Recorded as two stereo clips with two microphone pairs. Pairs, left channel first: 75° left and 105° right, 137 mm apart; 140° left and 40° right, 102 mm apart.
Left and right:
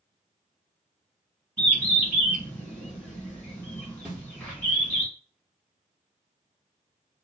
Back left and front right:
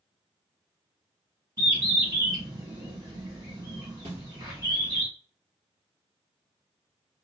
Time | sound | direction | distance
1.6 | a bird | 5° right | 1.9 m
4.0 | a snare drum | 20° right | 1.8 m